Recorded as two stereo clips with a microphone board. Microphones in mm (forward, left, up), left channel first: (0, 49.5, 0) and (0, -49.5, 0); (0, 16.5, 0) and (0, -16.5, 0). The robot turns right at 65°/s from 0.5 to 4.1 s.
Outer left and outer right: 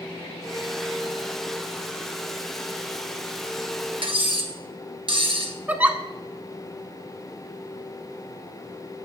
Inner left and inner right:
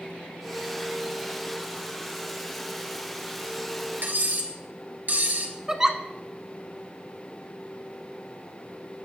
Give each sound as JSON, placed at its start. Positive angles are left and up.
{"t": 4.0, "sound": "cutlery clinking", "side_deg": -60, "distance_m": 1.5}
{"t": 5.7, "sound": "a giggle", "side_deg": -15, "distance_m": 0.5}